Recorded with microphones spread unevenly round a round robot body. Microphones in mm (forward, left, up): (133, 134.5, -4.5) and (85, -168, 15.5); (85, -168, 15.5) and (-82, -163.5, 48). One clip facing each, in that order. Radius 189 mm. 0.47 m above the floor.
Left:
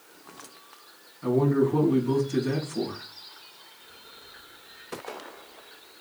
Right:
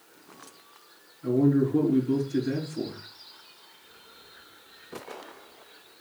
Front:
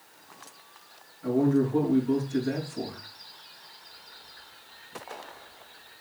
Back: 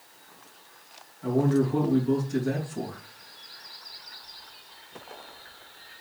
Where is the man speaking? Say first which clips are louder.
Even, even; 110° left, 4 m.